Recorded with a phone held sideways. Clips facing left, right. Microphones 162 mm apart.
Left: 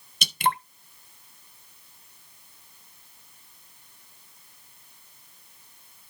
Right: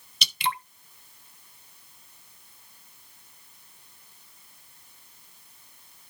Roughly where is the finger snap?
No finger snap in this recording.